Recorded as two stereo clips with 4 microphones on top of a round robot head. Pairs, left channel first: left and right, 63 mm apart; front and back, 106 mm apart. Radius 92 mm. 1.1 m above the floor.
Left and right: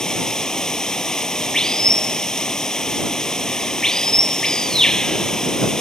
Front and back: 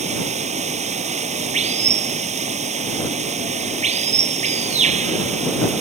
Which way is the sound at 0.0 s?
170° left.